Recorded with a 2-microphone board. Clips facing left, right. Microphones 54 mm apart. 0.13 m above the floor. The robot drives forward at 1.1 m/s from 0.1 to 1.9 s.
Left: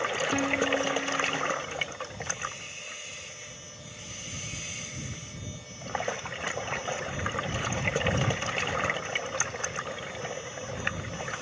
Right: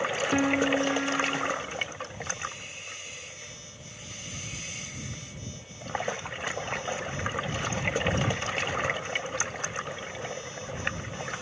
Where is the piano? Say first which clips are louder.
Right 4 dB; 15° right (ahead or behind), 1.0 m; by 1.5 s 20° right (ahead or behind), 0.8 m.